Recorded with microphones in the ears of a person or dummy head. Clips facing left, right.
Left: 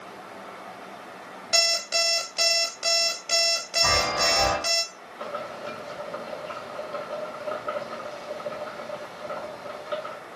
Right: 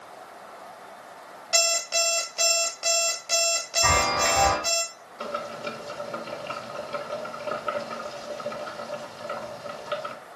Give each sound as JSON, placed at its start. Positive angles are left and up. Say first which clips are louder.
{"t": 1.5, "sound": "an alarm clock", "louder": "right 1 dB", "side_deg": 20, "distance_m": 1.4}
{"t": 3.8, "sound": "a chime", "louder": "right 1 dB", "side_deg": -70, "distance_m": 4.5}
{"t": 5.2, "sound": "boiling", "louder": "right 1 dB", "side_deg": -45, "distance_m": 2.5}